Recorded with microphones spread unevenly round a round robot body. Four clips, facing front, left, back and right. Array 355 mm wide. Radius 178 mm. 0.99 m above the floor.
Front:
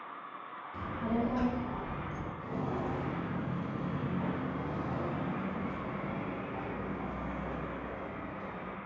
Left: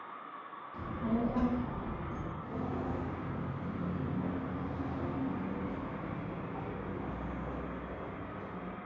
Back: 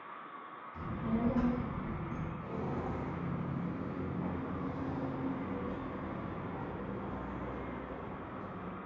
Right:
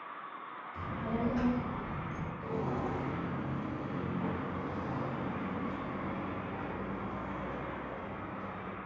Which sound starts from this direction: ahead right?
Footsteps, at 2.4 s.